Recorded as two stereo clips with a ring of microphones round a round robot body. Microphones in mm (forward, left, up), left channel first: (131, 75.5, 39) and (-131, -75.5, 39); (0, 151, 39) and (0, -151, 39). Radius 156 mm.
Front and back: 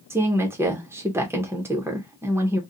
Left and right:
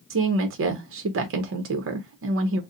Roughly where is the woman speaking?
Right.